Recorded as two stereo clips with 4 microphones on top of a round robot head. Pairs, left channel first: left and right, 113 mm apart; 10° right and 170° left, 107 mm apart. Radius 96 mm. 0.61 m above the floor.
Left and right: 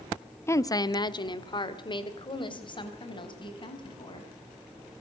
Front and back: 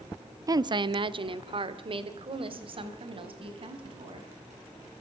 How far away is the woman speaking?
About 0.7 m.